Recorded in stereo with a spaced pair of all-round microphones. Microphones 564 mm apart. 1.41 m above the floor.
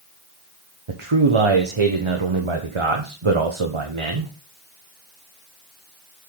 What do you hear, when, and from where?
0.9 s a man speaking: 60° right (ahead or behind), 1.1 m